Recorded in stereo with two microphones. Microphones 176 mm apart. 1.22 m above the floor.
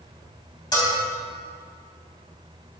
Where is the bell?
25° left (ahead or behind), 3.5 m.